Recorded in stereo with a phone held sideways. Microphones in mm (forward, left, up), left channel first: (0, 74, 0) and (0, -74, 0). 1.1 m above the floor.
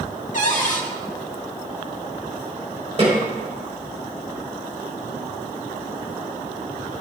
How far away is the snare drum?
About 4 m.